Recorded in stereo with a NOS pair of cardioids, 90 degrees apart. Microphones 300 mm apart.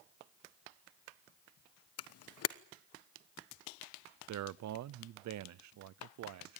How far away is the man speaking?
About 0.8 m.